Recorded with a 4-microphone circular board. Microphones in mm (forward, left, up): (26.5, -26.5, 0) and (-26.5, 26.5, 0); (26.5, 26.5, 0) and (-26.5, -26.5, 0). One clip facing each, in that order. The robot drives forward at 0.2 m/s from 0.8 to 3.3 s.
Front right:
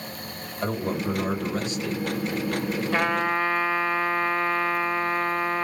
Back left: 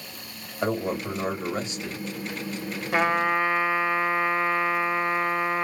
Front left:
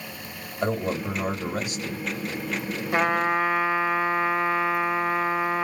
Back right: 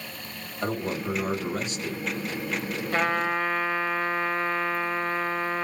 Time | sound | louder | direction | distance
0.6 | a man speaking | back left 1 dB, front left 3 dB | 85° left | 1.5 m
2.9 | a trumpet | back left 3 dB, front left 3 dB | 85° left | 0.6 m